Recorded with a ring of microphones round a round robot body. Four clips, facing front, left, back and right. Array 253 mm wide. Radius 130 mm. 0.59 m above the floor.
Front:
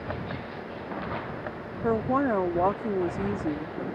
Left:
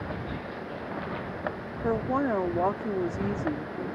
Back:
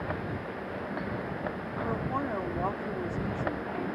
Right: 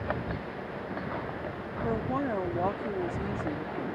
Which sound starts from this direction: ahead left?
A woman speaking, at 1.8 s.